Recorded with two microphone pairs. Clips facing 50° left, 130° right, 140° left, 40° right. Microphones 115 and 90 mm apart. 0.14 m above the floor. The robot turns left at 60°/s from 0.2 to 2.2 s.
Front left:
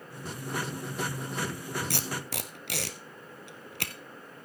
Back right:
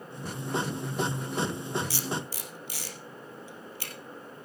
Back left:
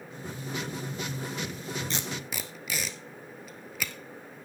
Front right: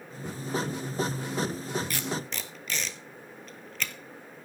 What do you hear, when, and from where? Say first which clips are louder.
1.9 s tape being pulled: back right 1 dB, front right 2 dB; 75° left, 1.3 m; by 3.9 s 55° left, 1.3 m